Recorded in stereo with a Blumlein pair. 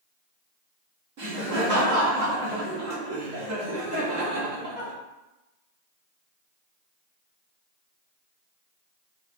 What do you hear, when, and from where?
1.2 s laughter: 45° right, 1.5 m